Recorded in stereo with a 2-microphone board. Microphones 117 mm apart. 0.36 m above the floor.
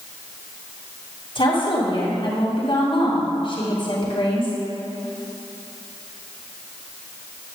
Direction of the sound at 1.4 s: 50° left (ahead or behind).